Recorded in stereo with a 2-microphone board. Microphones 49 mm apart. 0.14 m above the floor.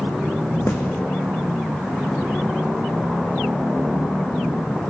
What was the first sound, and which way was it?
A snare drum, 55° left (ahead or behind).